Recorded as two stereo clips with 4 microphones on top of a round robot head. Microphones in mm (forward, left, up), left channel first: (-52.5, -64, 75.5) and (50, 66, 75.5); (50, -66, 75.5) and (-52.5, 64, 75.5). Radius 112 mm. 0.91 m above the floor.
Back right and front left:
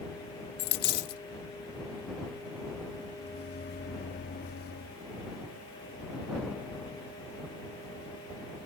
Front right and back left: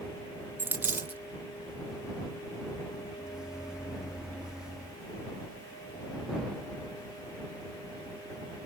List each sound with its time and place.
0.6 s a dropped coin: 155° right
3.2 s a microwave: 145° right